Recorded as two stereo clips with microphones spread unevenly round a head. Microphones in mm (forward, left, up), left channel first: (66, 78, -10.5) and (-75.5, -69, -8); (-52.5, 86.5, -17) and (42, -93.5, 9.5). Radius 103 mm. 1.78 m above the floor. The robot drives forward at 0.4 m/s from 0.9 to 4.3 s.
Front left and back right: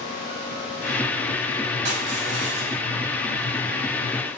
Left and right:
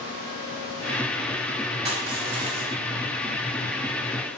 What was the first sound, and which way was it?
Crushing, 125° right.